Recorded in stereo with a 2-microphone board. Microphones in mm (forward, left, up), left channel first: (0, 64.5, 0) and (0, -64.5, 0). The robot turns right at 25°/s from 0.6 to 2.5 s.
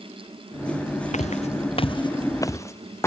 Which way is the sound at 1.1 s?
65° left (ahead or behind).